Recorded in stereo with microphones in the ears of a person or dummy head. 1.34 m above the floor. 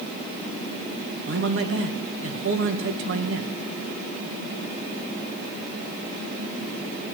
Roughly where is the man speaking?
Right.